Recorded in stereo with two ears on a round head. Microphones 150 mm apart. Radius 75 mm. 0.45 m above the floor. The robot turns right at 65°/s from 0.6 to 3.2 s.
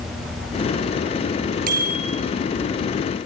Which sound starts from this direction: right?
A bicycle bell, at 1.7 s.